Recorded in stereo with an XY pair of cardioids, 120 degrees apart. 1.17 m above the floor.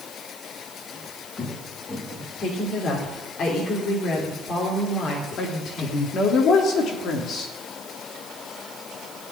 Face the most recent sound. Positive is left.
turn(degrees=55)